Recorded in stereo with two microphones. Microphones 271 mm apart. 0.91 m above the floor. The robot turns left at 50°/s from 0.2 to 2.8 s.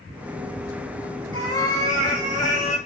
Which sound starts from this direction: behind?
A cat meowing, at 1.3 s.